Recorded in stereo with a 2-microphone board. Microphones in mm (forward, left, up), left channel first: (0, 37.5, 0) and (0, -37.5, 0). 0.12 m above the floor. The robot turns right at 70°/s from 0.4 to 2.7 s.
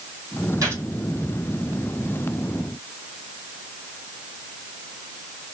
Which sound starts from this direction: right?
A gunshot, at 0.6 s.